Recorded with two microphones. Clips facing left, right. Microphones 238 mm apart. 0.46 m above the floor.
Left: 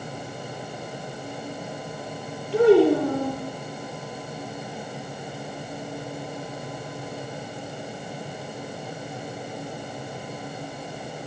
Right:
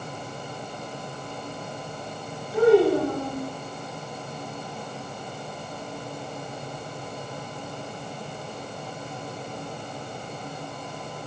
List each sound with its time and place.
2.5 s a child speaking: 80° left, 7 m